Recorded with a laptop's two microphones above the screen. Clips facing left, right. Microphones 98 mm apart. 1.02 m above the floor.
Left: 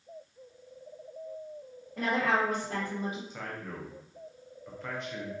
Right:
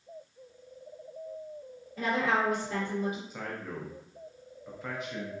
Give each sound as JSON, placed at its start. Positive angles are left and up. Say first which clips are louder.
{"t": 2.0, "sound": "a woman speaking", "louder": "even", "side_deg": 65, "distance_m": 1.3}
{"t": 3.3, "sound": "a man speaking", "louder": "right 2 dB", "side_deg": -5, "distance_m": 0.6}